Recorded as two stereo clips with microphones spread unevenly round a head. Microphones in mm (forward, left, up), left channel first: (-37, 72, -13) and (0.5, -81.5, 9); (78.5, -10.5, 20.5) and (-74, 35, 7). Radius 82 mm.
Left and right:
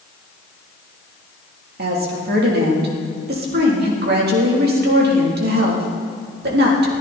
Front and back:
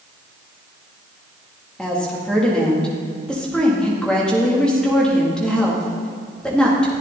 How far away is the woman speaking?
About 3.5 m.